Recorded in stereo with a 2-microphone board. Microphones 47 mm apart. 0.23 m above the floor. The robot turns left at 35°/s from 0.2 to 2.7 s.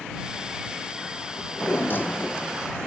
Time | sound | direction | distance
1.4 | a drawer | 65° left | ?